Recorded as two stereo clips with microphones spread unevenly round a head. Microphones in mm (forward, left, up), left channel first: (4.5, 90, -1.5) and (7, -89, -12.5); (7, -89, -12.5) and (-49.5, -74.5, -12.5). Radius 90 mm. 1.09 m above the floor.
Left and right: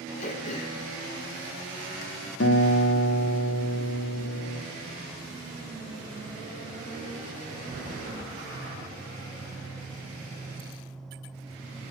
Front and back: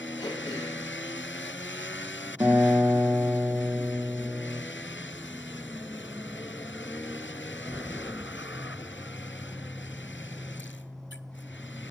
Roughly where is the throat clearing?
Ahead left.